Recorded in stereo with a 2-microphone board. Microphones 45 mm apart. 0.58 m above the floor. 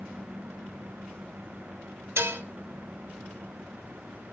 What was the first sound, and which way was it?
Dishes clattering, 75° right (ahead or behind).